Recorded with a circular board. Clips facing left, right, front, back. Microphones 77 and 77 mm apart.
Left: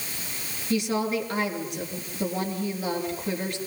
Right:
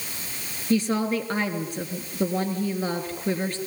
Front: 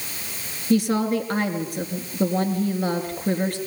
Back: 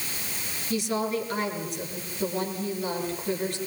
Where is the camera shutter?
I don't hear a camera shutter.